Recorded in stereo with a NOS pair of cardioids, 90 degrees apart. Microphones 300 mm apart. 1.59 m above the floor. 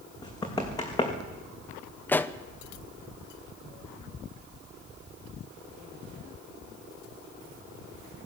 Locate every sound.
0.2 s running footsteps: 15° left, 5 m
2.1 s a pop: 5° left, 0.8 m